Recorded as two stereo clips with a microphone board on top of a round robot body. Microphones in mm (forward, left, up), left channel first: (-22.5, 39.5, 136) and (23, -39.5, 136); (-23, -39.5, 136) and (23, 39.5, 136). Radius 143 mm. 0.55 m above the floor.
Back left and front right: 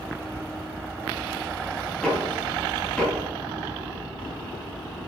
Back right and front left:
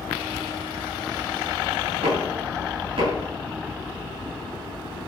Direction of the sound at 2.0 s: 40° left.